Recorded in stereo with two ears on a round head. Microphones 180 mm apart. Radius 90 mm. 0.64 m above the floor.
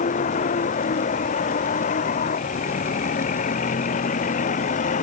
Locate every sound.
0.0 s a vehicle: 40° left (ahead or behind)